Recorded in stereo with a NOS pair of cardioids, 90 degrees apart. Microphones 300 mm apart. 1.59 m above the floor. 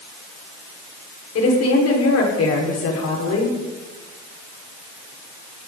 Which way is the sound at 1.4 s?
55° left.